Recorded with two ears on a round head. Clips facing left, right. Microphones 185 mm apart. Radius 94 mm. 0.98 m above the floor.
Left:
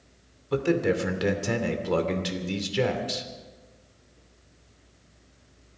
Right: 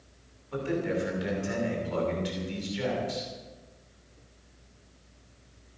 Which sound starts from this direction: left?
A man speaking, at 0.5 s.